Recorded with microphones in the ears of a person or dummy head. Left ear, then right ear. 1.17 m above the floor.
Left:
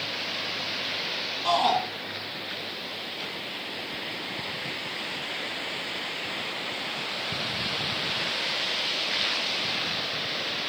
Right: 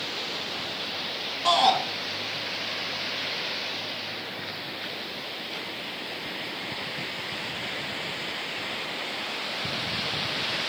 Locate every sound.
1.4 s a shout: 15° right (ahead or behind), 1.4 m